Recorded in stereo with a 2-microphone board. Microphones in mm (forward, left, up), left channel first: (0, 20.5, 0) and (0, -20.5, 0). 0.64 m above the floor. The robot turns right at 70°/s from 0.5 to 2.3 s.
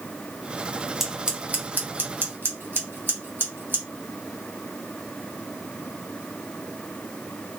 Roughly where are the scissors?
Centre.